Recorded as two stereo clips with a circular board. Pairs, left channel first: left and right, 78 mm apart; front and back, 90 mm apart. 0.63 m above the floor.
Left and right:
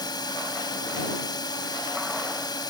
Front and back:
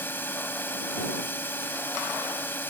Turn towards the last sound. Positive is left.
turn(degrees=65)